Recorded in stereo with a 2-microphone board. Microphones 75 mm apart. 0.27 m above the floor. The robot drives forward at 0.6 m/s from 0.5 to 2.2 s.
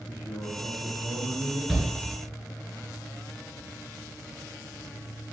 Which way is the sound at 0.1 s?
20° left (ahead or behind).